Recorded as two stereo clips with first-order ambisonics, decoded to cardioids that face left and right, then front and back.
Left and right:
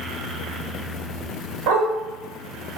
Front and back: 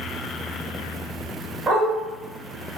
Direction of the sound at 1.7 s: 105° right.